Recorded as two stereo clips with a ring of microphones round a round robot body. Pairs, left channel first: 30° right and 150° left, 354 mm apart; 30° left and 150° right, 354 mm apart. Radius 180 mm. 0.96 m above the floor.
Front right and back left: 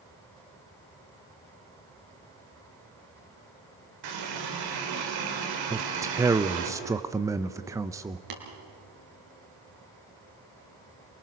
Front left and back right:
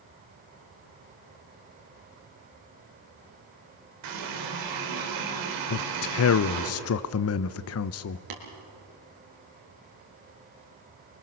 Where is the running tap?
175° left, 3 m.